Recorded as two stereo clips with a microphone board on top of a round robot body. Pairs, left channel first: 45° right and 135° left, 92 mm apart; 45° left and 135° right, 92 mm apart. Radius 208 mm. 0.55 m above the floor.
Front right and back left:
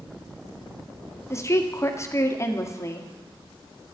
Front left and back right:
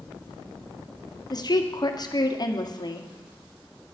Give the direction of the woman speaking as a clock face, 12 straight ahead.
12 o'clock.